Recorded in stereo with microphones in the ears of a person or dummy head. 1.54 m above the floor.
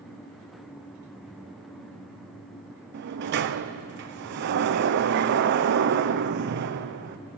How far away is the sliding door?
About 0.6 m.